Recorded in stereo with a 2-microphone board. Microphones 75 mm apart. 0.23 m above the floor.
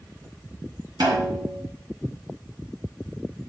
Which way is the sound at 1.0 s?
60° right (ahead or behind).